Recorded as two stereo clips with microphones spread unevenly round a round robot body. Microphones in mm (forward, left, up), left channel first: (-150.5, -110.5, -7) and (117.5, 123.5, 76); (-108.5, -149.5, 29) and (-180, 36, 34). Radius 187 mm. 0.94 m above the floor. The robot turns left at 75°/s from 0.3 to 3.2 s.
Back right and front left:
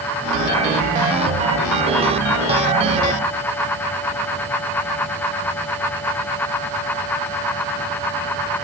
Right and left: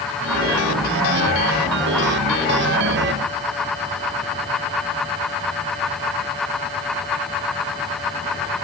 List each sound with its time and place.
Only background noise.